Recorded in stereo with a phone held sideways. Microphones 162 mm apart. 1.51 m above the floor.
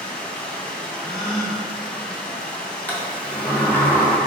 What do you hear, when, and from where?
0.0 s running water: 5° left (ahead or behind), 1.5 m
1.0 s a gasp: centre (ahead or behind), 1.3 m
2.9 s a sliding door: 10° left (ahead or behind), 1.8 m